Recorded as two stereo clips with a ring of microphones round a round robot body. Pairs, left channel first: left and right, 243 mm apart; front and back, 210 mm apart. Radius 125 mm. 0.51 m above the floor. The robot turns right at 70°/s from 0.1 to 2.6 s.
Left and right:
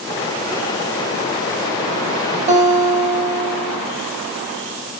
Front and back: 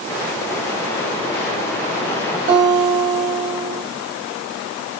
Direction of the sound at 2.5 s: 145° right.